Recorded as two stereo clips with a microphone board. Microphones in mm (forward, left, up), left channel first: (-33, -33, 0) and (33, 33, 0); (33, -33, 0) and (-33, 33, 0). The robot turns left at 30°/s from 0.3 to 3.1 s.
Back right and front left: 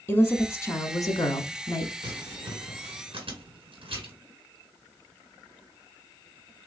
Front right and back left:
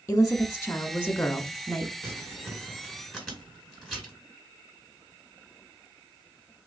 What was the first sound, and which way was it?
A woman speaking, 85° right.